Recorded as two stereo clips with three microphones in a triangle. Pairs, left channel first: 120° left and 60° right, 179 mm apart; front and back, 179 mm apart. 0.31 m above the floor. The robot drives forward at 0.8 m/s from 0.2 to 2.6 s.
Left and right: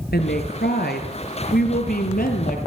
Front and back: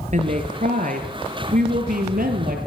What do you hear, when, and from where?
0.1 s a woman speaking: 135° left, 4.5 m; by 2.6 s 150° left, 6 m